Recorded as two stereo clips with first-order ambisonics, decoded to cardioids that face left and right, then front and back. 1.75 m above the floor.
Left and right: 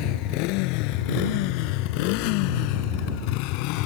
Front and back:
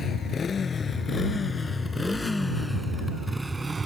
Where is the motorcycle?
70° left; by 3.9 s 105° left.